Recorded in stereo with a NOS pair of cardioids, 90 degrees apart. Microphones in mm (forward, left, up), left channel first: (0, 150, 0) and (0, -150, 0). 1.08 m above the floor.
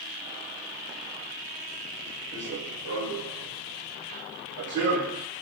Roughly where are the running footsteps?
Ahead right.